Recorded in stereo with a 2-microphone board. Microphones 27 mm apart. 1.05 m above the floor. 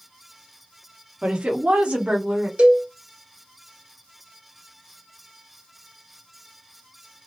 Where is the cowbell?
50° right (ahead or behind), 1.0 m.